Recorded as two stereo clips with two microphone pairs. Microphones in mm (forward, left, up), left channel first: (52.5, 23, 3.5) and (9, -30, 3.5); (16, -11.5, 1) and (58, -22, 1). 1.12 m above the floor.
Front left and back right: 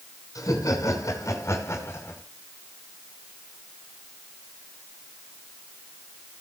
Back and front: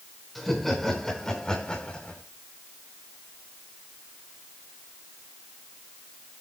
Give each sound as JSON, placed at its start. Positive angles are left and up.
{"t": 0.3, "sound": "laughter", "azimuth_deg": 75, "distance_m": 5.5}